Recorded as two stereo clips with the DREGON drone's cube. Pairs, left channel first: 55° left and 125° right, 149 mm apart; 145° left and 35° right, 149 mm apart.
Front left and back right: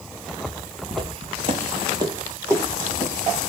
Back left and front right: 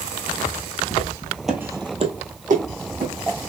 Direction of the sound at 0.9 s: 175° right.